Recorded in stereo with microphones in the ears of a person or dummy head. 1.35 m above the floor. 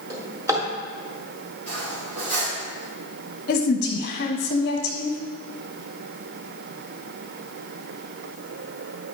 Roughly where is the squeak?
No squeak in this recording.